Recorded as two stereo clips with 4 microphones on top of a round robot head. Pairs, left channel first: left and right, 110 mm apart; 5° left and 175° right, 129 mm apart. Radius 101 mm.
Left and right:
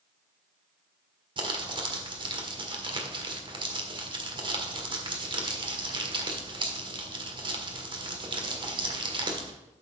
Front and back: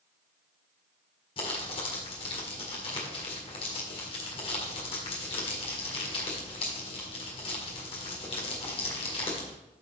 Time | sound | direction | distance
1.4 | crumpling | 50° right | 1.7 m